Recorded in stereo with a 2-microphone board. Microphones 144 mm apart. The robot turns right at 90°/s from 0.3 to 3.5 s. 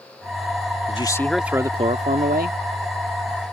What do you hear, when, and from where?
0.9 s a man speaking: 135° left; by 2.6 s 70° right